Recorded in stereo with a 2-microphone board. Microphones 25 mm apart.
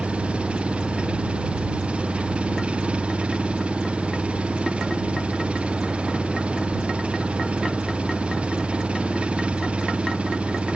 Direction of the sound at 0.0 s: 55° right (ahead or behind).